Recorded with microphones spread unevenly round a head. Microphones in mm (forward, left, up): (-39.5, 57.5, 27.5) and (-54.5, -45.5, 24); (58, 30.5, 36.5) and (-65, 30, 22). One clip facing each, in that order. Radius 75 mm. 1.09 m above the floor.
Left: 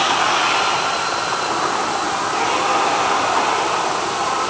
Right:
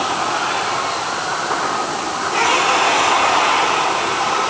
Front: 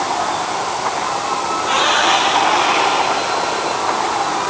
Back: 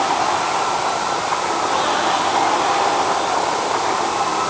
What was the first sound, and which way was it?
Only background noise.